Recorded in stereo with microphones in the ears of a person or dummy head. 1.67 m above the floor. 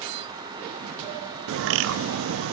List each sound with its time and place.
1.5 s a bird: 75° right (ahead or behind), 0.5 m